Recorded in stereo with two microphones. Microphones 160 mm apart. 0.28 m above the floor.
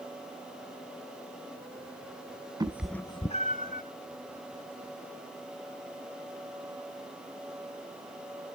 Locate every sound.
2.6 s a cat meowing: 25° right (ahead or behind), 0.6 m; by 3.8 s 60° left (ahead or behind), 1.0 m